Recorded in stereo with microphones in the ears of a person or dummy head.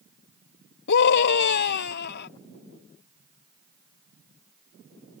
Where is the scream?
55° left (ahead or behind); by 2.3 s 50° left (ahead or behind).